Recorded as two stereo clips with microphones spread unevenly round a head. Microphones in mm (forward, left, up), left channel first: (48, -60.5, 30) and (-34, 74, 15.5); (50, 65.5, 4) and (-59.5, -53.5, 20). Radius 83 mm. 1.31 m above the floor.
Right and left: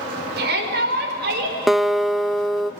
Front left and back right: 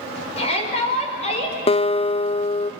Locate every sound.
0.4 s a shout: 100° left, 5 m
1.7 s a guitar: 40° left, 0.5 m